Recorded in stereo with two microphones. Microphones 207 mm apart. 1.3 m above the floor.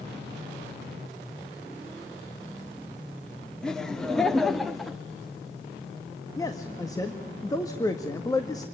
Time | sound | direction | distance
3.6 | laughter | 5° left (ahead or behind) | 2.5 m
6.4 | a man speaking | 15° left (ahead or behind) | 1.7 m